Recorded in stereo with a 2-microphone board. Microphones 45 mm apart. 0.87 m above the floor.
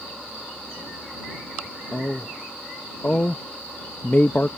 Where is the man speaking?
45° left (ahead or behind).